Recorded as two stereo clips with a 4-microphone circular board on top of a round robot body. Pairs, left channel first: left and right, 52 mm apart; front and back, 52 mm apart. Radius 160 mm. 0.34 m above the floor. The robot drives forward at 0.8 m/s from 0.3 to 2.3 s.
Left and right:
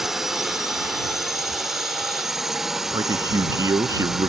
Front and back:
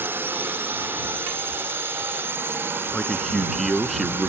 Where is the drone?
170° right; by 4.3 s 175° right.